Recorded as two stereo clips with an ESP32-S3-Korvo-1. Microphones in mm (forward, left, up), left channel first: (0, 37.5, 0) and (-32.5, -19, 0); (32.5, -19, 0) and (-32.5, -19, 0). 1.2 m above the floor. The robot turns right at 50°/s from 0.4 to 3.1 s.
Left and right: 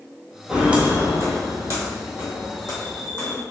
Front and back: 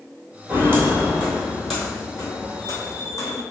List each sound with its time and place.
0.5 s footsteps: 165° left, 1.3 m; by 3.4 s 10° right, 3 m